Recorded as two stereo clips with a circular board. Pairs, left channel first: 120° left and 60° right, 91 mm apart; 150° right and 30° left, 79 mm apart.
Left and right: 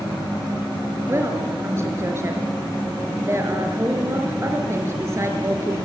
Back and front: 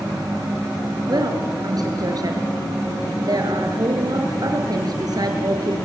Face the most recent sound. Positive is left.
turn(degrees=0)